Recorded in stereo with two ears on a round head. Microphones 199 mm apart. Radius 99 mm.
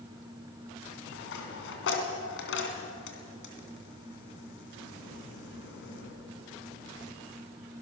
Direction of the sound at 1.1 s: 60° left (ahead or behind).